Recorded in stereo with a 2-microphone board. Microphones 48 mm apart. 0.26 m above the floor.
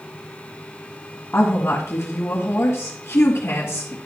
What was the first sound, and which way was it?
A woman speaking, 55° left (ahead or behind).